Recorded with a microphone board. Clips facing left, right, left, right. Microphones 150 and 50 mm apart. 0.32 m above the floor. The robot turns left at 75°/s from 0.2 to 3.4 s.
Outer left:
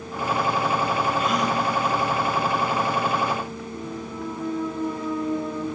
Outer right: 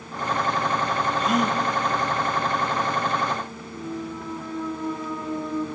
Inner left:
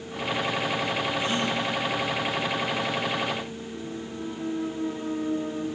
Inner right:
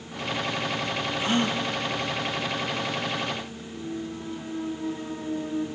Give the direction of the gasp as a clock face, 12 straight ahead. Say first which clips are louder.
Outer right 1 dB, inner right 1 dB; 1 o'clock.